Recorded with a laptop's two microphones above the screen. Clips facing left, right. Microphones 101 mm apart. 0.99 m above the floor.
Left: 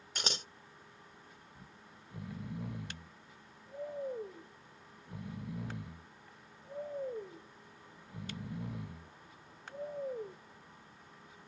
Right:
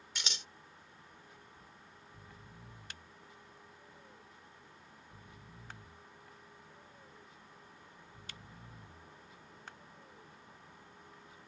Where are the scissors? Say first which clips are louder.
Left 6 dB; 45° left (ahead or behind).